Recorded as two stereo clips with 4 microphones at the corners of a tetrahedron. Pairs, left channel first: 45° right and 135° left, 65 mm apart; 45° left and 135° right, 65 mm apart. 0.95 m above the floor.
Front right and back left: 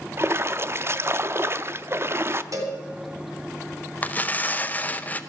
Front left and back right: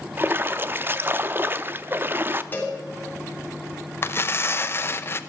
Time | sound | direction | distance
0.2 | a splash | 175° left | 0.5 m
2.5 | a cowbell | 105° left | 3 m
4.0 | tearing paper | 10° left | 0.7 m